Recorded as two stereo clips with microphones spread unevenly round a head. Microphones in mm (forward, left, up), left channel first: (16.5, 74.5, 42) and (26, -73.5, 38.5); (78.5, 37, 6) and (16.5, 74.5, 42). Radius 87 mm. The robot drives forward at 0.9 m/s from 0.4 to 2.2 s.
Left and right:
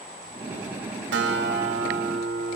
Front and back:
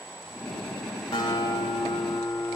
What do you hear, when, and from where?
1.1 s a guitar: 100° right, 3.5 m; by 2.6 s 115° right, 3.5 m